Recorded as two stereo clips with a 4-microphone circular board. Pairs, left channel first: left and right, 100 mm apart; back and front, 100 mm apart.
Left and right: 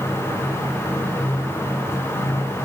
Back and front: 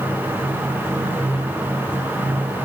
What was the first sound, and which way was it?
Only background noise.